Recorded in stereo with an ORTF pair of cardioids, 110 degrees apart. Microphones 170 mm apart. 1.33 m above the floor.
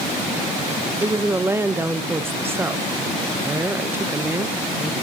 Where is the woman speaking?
15° right, 1.0 m.